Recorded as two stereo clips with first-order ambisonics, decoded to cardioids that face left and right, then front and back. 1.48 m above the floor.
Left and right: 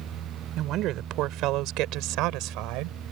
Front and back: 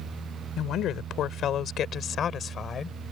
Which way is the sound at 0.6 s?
45° right.